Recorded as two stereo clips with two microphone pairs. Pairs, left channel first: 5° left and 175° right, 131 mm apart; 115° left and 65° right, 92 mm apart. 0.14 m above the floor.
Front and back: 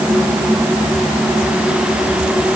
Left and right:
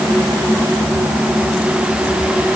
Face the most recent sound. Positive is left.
No sound to turn to.